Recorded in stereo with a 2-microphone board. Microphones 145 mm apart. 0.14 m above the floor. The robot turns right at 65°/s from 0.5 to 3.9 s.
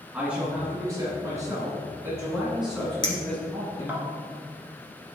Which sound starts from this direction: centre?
A man speaking, at 0.1 s.